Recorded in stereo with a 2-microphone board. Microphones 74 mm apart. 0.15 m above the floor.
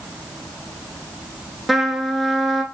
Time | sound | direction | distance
1.7 | a trumpet | centre (ahead or behind) | 0.5 m